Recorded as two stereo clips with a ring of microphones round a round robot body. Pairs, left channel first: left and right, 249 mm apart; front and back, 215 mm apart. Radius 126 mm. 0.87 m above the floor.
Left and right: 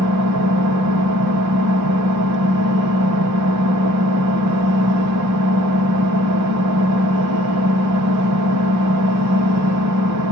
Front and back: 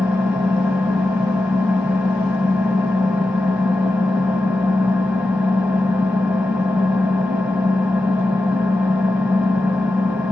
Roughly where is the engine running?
Right.